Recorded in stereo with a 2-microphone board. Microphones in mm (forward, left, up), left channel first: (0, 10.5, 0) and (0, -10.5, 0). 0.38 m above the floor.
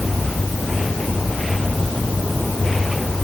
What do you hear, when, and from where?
Only background noise.